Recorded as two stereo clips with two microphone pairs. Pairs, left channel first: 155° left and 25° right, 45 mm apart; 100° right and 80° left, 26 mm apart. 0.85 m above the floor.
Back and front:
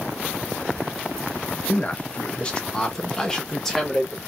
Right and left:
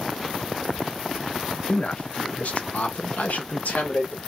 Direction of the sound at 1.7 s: 150° right.